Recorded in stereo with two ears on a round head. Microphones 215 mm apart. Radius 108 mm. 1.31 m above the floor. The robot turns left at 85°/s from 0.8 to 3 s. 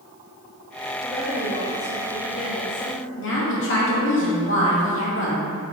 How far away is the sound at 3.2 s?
About 2.5 m.